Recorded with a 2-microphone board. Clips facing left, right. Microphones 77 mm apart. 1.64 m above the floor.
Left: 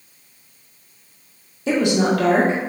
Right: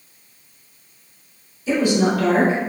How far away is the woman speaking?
About 0.7 m.